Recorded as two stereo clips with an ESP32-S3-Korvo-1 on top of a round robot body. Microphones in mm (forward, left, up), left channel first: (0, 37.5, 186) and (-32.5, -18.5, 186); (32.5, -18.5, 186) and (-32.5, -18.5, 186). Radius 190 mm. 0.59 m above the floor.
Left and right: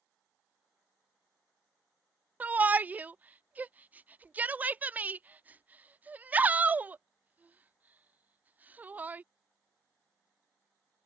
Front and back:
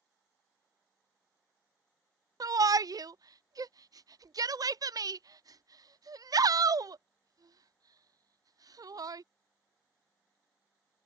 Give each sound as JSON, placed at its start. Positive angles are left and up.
{"t": 2.4, "sound": "a shout", "azimuth_deg": 175}